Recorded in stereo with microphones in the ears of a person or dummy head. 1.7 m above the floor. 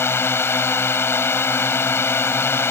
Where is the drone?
5° left (ahead or behind).